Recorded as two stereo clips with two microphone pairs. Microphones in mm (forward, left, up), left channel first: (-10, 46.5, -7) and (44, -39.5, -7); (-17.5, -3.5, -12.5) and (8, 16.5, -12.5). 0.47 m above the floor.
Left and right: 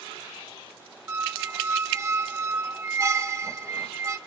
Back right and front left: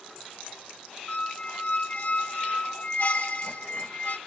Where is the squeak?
115° right, 0.7 m.